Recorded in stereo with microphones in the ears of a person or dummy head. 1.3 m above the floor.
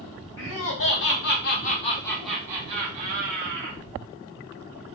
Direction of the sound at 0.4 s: 65° left (ahead or behind).